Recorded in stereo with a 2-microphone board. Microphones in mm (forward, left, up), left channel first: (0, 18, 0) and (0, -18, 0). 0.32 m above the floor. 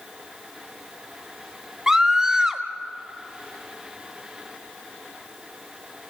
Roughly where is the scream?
Centre.